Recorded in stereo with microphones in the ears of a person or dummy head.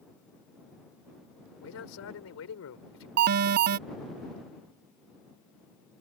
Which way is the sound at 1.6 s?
85° left.